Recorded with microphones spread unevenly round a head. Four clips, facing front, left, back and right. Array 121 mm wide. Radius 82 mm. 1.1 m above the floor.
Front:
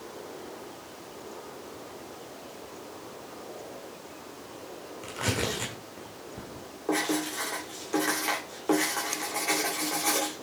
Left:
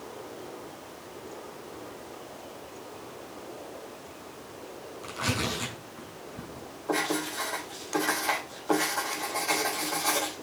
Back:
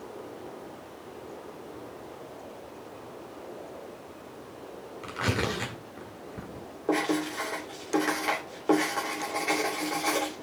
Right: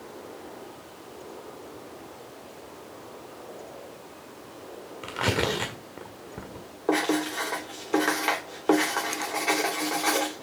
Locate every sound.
5.0 s tearing paper: 100° right, 1.8 m
6.9 s writing: 110° right, 3.5 m